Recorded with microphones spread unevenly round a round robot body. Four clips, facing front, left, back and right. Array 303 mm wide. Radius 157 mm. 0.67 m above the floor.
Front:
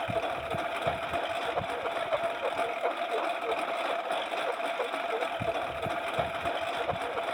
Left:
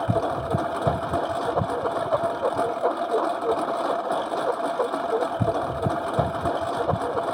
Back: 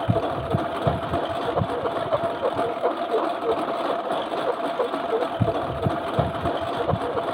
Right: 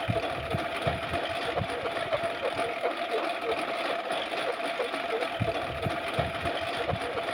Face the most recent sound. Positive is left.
turn(degrees=150)